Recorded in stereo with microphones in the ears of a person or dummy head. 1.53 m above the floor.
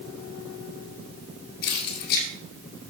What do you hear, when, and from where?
1.6 s keys jangling: 60° left (ahead or behind), 2 m